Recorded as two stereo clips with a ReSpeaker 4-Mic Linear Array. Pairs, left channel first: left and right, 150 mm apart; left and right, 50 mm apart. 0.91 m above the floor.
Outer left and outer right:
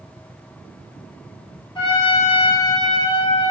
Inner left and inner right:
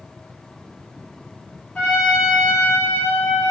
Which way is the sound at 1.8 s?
35° left (ahead or behind).